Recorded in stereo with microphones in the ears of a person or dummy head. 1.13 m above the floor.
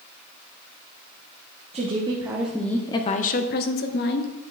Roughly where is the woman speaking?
Right.